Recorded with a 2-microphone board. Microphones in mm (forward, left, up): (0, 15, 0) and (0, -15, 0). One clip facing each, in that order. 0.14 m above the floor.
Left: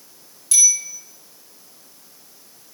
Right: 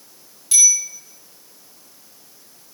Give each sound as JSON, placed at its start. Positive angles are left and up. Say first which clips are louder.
{"t": 0.5, "sound": "a bicycle bell", "louder": "right 1 dB", "side_deg": -15, "distance_m": 8.5}